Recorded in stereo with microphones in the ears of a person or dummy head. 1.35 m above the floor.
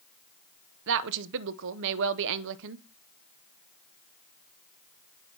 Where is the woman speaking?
65° right (ahead or behind), 0.6 m.